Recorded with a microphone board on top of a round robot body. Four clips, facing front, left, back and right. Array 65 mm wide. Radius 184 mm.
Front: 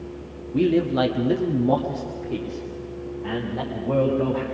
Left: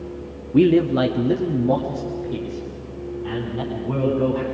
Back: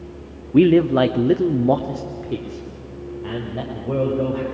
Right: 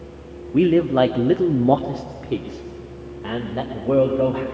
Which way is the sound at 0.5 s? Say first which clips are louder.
Even, back 6 dB; straight behind.